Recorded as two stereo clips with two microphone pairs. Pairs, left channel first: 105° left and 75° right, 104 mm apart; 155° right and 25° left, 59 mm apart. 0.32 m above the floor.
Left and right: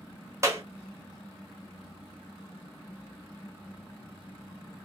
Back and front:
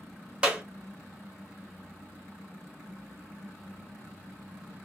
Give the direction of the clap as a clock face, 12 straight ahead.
1 o'clock.